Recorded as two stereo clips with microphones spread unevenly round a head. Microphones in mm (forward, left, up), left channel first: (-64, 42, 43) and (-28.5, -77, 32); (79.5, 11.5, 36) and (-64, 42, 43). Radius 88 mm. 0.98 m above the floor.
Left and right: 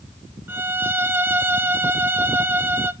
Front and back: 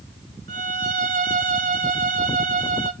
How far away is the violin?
About 0.9 m.